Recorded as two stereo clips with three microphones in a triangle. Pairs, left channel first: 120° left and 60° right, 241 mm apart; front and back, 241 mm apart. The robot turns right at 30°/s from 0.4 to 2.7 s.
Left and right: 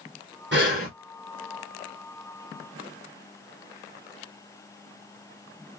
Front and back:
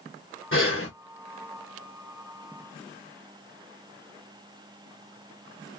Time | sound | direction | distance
0.5 | breathing | 25° right | 1.4 m